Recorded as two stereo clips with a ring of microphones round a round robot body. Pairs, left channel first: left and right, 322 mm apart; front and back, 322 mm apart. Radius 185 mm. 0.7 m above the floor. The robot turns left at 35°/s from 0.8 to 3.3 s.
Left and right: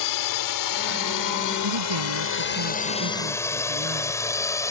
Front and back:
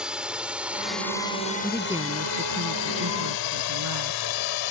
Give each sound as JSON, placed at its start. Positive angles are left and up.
{"t": 0.0, "sound": "a drone", "azimuth_deg": 90}
{"t": 1.6, "sound": "a woman speaking", "azimuth_deg": -90}